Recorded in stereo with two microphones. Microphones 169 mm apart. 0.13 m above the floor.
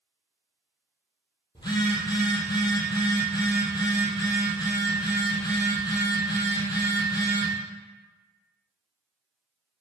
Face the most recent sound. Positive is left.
turn(degrees=25)  # may be behind; listen again after turning